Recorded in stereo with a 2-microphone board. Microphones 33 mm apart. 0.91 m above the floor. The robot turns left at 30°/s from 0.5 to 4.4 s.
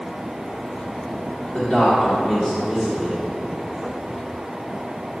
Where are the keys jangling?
No keys jangling in this recording.